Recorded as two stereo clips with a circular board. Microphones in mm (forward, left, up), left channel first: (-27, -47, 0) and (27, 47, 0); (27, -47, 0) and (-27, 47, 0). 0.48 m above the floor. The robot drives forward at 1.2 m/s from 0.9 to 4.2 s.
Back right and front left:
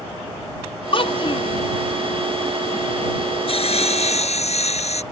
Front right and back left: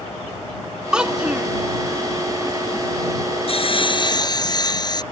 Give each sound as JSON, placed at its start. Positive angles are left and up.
{"t": 0.9, "sound": "a child speaking", "azimuth_deg": -155}
{"t": 3.5, "sound": "sawing", "azimuth_deg": -90}